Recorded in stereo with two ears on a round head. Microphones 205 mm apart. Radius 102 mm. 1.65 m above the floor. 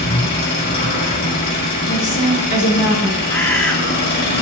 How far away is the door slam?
No door slam in this recording.